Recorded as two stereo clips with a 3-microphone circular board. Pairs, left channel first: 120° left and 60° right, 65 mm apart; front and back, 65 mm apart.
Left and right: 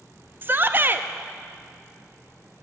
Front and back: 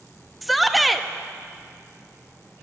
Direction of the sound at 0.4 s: 90° right.